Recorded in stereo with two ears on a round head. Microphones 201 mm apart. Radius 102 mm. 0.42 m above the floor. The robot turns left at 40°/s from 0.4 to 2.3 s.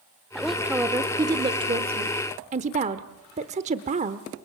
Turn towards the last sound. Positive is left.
turn(degrees=-75)